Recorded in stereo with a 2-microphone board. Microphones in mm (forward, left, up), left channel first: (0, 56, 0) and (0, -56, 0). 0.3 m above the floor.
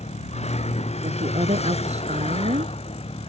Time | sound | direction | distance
0.0 | a vehicle | 70° left (ahead or behind) | ?
1.0 | a woman speaking | 70° right (ahead or behind) | ?